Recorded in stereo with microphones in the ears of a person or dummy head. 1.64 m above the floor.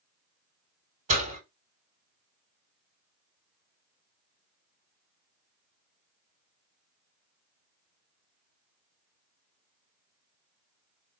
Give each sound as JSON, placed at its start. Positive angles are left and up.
{"t": 1.1, "sound": "a door slam", "side_deg": -35, "distance_m": 3.5}